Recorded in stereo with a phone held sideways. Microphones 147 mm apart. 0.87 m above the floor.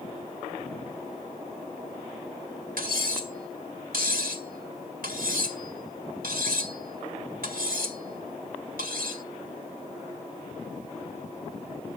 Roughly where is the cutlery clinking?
Right.